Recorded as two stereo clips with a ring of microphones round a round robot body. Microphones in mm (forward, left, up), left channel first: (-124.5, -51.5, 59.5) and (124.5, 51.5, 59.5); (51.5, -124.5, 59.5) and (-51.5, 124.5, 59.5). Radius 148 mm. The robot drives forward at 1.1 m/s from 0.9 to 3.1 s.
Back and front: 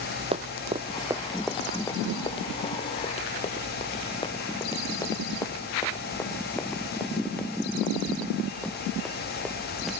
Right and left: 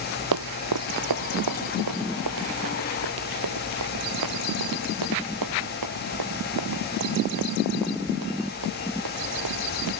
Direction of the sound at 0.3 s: 90° left.